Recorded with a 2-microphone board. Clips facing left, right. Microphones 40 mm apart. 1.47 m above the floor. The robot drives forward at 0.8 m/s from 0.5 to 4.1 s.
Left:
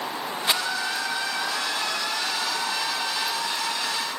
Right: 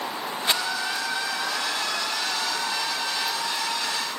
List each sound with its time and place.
0.5 s a rattle: 5° left (ahead or behind), 0.8 m